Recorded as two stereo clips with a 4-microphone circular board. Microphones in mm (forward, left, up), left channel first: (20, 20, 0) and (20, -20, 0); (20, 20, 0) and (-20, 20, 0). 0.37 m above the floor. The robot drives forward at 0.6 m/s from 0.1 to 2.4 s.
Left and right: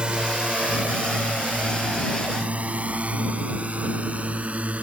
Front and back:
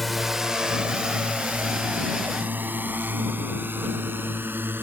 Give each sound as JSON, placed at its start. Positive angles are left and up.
{"t": 0.0, "sound": "a drone", "azimuth_deg": -90}